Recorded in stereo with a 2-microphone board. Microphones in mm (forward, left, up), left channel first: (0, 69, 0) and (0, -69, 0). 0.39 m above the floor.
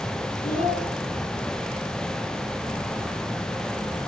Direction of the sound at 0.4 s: 80° left.